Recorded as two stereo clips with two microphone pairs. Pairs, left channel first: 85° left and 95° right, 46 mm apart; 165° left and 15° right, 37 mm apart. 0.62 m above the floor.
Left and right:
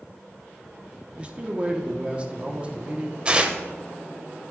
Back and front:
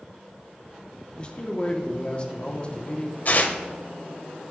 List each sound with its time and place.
1.2 s a man speaking: 145° right, 0.9 m
3.2 s tearing paper: 160° right, 0.6 m